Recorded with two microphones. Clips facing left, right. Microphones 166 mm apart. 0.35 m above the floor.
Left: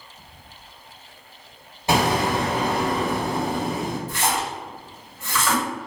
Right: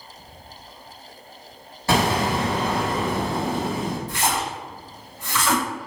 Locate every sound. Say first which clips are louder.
1.9 s an explosion: even; 20° left (ahead or behind), 1.2 m
4.1 s a splash: even; 5° left (ahead or behind), 1.6 m